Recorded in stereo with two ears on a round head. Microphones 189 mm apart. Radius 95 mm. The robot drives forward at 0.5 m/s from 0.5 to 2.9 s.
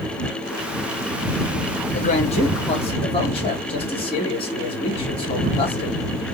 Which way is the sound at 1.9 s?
35° left (ahead or behind).